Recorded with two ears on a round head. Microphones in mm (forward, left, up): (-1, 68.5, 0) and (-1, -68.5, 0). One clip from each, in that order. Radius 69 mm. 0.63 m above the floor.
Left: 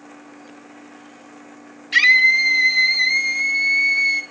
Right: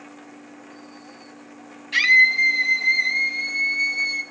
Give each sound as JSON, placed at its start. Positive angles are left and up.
{"t": 1.9, "sound": "a scream", "side_deg": 30, "distance_m": 4.0}